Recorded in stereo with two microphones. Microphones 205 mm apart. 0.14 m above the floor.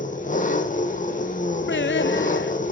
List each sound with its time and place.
0.0 s an engine running: 40° left (ahead or behind), 1.5 m
1.7 s singing: 65° left (ahead or behind), 0.6 m